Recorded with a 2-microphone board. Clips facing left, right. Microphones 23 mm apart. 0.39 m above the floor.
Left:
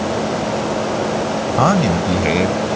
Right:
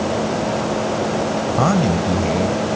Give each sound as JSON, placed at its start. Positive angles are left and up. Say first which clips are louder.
{"t": 1.6, "sound": "a man speaking", "louder": "left 3 dB", "side_deg": 20}